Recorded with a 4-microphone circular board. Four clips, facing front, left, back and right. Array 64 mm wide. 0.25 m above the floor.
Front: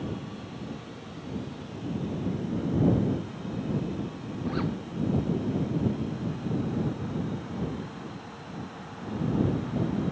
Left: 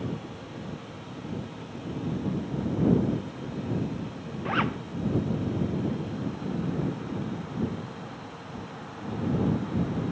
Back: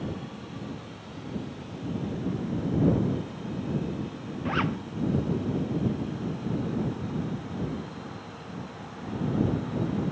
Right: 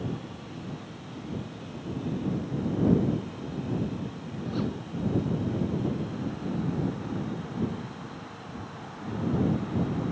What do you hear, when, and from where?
4.5 s a zipper: 120° left